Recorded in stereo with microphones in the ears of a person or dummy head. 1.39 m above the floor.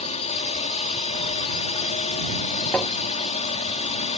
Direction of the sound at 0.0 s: 30° left (ahead or behind).